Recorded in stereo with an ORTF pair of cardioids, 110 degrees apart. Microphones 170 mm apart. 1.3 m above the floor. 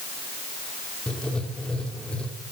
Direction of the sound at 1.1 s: 5° left.